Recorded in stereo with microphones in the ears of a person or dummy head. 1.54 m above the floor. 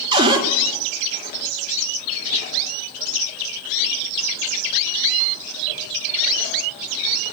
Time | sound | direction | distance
0.1 | a cupboard door | 20° right (ahead or behind) | 0.6 m